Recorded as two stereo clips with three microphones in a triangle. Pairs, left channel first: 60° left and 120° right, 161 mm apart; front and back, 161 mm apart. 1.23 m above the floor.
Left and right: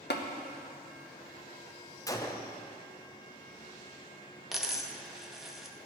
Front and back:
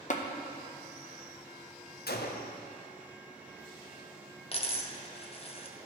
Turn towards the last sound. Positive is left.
turn(degrees=-30)